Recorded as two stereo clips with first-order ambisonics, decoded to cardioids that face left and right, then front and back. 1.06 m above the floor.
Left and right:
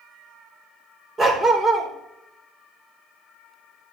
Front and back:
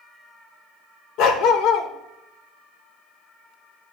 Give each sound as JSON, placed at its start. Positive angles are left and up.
{"t": 1.2, "sound": "a dog barking", "azimuth_deg": -20, "distance_m": 1.2}